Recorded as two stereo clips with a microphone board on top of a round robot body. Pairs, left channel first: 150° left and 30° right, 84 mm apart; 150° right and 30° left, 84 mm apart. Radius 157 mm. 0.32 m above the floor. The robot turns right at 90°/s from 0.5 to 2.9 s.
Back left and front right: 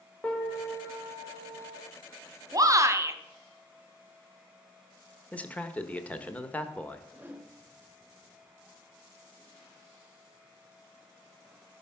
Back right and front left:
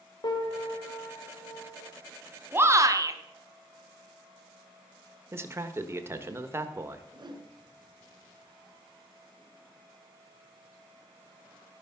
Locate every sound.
0.2 s a piano: 135° right, 2.5 m; by 1.8 s 15° right, 2.5 m
2.5 s a shout: 25° right, 1.6 m; by 3.2 s 10° left, 1.6 m
5.3 s a man speaking: 80° left, 1.4 m
7.1 s a whoosh: 40° left, 2.5 m